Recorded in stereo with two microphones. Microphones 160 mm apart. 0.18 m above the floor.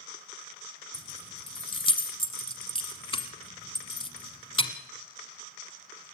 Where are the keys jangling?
35° left (ahead or behind), 1.3 m.